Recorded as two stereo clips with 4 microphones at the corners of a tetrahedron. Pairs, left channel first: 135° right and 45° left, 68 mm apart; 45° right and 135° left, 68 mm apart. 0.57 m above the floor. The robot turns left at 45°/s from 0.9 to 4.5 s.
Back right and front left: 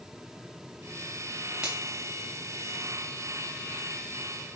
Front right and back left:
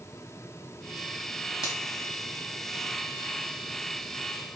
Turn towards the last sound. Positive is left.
turn(degrees=-160)